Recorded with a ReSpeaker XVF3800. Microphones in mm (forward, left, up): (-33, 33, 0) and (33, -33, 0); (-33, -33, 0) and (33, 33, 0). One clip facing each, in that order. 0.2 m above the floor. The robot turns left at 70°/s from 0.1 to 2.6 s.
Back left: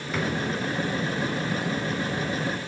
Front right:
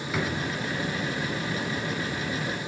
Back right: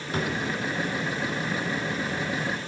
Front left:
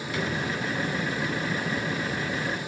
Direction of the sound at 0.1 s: 125° right.